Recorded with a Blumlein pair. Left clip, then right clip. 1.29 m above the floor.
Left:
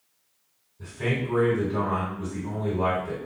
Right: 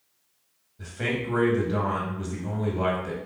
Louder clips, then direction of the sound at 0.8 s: Even; 40° right.